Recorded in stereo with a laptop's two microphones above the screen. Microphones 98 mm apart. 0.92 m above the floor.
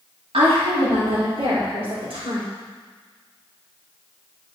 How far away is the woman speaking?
About 2 m.